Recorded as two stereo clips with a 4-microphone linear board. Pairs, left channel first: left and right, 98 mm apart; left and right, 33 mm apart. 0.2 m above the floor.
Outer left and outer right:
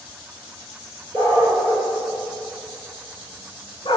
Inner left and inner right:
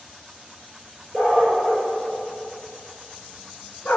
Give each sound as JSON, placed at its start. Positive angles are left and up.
{"t": 1.1, "sound": "a dog barking", "side_deg": 30, "distance_m": 1.8}